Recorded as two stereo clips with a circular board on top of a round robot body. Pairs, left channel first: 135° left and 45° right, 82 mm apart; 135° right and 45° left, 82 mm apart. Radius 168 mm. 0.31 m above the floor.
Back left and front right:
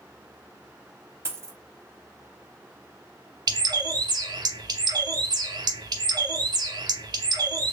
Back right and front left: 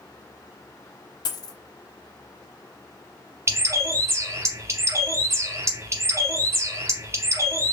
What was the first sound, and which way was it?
A dropped coin, 100° right.